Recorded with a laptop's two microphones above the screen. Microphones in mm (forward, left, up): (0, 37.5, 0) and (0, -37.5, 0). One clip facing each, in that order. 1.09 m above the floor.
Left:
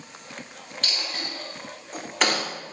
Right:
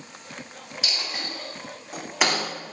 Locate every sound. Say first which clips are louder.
0.8 s a dropped coin: even; 10° right (ahead or behind), 1.0 m